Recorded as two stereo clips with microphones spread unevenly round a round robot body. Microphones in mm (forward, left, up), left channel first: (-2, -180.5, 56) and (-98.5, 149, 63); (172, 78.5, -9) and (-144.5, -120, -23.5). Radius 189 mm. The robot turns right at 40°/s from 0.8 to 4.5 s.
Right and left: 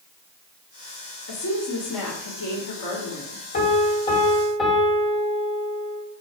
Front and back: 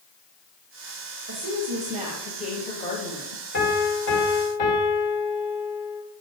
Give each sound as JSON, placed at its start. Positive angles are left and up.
{"t": 1.3, "sound": "a woman speaking", "azimuth_deg": -105, "distance_m": 1.7}
{"t": 3.5, "sound": "a piano", "azimuth_deg": -20, "distance_m": 2.0}